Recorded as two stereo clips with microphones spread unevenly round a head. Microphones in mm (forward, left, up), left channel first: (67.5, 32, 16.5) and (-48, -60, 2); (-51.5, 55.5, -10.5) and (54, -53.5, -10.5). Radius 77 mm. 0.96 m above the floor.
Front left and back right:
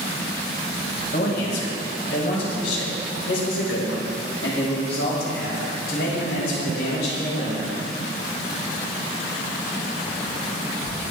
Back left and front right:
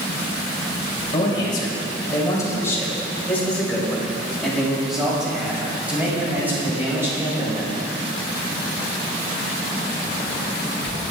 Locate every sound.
1.1 s a man speaking: 75° left, 5.5 m; by 7.7 s 25° left, 8.5 m